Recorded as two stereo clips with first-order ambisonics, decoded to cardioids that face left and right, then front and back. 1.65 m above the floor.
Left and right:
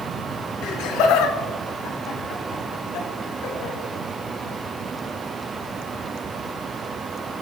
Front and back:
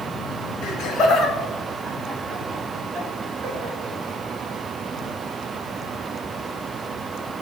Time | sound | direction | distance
0.6 | laughter | 45° left | 0.8 m